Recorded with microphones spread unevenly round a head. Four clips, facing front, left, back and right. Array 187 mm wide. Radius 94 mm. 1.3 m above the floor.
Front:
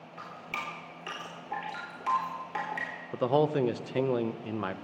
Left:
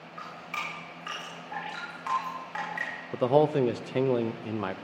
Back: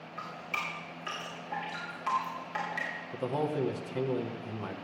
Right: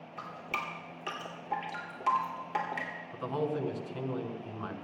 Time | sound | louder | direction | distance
0.2 | dripping | even, back 1 dB | 65° right | 2.5 m
3.1 | a man speaking | left 11 dB, front 6 dB | 70° left | 0.7 m